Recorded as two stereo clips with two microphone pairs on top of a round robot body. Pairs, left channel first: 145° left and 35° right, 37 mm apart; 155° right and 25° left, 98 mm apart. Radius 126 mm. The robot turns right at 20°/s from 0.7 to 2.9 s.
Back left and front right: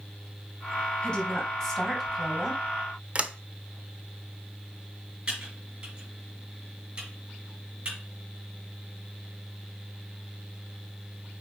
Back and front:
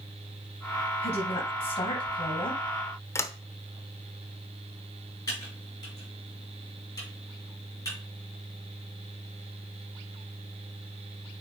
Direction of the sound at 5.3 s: 95° right.